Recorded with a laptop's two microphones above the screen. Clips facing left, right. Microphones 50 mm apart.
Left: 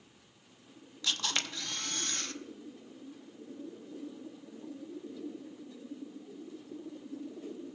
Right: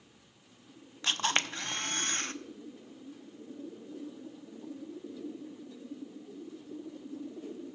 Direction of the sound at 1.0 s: 40° right (ahead or behind).